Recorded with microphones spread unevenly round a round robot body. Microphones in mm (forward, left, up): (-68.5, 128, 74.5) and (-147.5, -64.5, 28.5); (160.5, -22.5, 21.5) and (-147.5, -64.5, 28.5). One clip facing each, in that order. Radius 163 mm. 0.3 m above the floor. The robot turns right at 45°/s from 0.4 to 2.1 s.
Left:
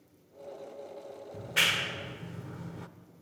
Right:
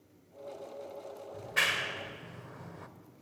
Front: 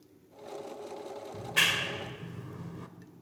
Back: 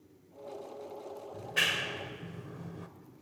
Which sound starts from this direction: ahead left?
A clap, at 1.3 s.